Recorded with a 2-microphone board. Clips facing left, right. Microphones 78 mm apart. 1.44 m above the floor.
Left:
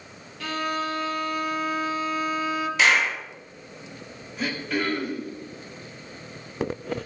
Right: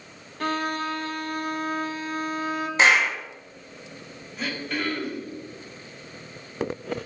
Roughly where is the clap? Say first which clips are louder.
Right 2 dB; right.